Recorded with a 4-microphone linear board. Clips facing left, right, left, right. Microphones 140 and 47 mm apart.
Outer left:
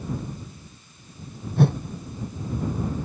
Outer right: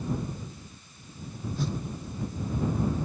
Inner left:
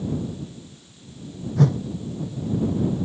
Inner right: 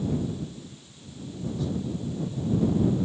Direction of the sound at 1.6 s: 65° left (ahead or behind).